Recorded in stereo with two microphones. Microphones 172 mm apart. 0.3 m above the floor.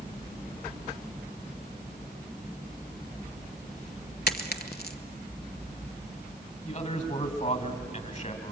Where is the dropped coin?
65° left (ahead or behind), 1.1 m.